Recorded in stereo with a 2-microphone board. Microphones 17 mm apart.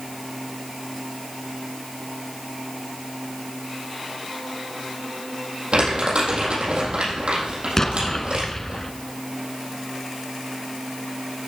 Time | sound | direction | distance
5.7 | crumpling | 70° right (ahead or behind) | 5.5 m
7.8 | an explosion | 20° left (ahead or behind) | 1.0 m